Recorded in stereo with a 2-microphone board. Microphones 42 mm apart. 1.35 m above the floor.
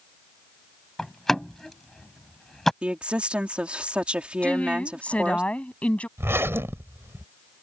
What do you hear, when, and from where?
1.0 s a door slam: 10° left (ahead or behind)
2.8 s a woman speaking: 25° right (ahead or behind)
4.4 s a woman speaking: 30° left (ahead or behind)
6.2 s a zipper: 75° right (ahead or behind)